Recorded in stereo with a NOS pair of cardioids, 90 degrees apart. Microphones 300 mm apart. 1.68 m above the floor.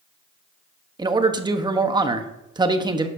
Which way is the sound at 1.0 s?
15° right.